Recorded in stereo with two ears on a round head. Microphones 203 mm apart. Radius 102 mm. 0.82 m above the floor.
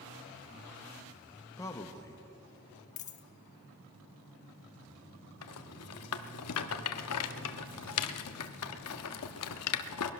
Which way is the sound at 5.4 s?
75° left (ahead or behind).